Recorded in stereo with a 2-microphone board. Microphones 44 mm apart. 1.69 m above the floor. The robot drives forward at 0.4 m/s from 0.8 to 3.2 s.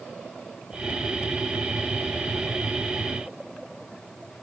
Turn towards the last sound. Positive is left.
No sound to turn to.